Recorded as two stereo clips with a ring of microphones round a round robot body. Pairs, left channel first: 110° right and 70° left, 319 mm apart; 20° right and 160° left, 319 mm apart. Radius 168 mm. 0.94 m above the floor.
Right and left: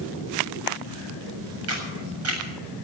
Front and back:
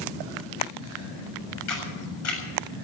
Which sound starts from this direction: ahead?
A camera shutter, at 1.7 s.